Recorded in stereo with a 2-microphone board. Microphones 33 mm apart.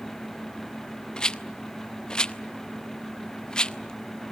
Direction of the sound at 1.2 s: 25° left (ahead or behind).